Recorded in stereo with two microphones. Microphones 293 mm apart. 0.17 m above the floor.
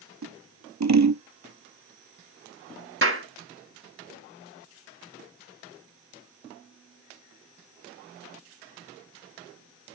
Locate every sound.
0.2 s scissors: 70° right (ahead or behind), 0.5 m
3.0 s a clap: 45° right (ahead or behind), 1.6 m